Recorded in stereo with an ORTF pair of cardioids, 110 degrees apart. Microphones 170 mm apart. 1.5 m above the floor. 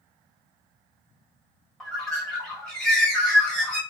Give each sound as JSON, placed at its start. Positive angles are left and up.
{"t": 1.8, "sound": "a bird", "azimuth_deg": 5, "distance_m": 1.0}